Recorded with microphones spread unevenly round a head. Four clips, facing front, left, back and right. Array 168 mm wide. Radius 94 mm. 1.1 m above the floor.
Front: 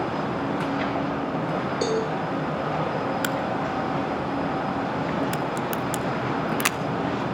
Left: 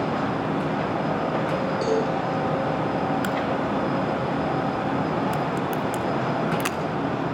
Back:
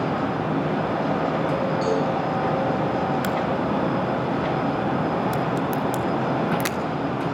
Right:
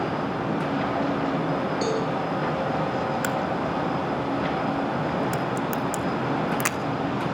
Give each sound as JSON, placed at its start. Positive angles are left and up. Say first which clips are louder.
{"t": 1.8, "sound": "a cowbell", "louder": "left 5 dB, even", "azimuth_deg": 5, "distance_m": 8.5}
{"t": 3.2, "sound": "a crack", "louder": "left 1 dB, back 3 dB", "azimuth_deg": -50, "distance_m": 0.9}